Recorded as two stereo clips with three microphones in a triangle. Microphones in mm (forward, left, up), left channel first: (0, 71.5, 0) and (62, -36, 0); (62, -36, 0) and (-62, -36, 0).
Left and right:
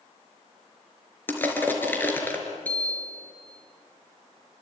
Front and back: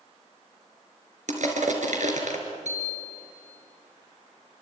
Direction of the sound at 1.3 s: 165° right.